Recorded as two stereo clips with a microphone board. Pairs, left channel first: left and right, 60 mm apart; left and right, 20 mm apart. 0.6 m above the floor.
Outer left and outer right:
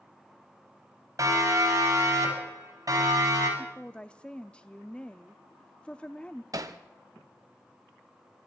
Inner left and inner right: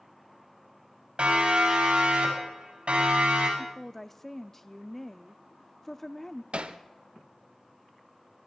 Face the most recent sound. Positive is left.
turn(degrees=-75)  # may be behind; listen again after turning